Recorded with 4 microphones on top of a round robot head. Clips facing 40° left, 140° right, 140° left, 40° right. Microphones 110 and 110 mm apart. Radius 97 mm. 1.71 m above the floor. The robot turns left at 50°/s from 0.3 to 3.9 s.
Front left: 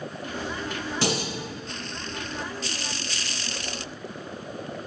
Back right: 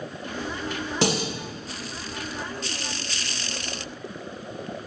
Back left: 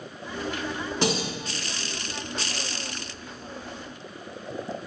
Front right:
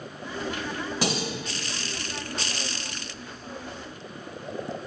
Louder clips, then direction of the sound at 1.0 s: Back right 3 dB, back left 3 dB; 120° right.